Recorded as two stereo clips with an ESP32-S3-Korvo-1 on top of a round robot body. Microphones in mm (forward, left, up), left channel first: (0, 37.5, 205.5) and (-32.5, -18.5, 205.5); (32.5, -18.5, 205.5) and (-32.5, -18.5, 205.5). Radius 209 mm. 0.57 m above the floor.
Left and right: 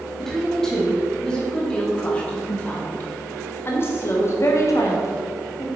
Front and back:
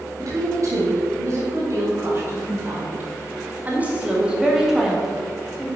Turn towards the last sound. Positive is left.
turn(degrees=75)